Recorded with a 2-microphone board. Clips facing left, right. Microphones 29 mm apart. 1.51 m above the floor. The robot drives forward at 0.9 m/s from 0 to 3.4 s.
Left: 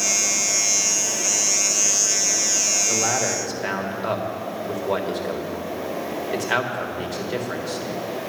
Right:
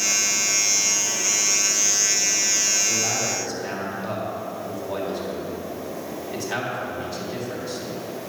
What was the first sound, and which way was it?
A man speaking, 80° left.